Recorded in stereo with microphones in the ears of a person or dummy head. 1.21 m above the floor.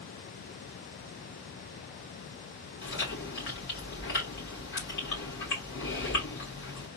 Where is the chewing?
50° left (ahead or behind), 1.8 m.